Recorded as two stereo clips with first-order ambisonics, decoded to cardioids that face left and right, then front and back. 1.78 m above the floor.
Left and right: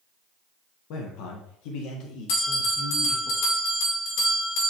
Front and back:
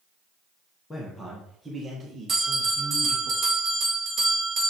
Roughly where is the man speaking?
Left.